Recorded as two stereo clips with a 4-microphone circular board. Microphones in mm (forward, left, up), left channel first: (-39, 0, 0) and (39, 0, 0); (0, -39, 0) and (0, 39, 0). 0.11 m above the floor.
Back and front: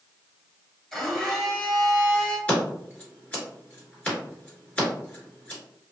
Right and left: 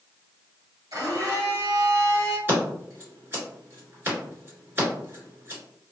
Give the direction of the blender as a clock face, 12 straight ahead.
9 o'clock.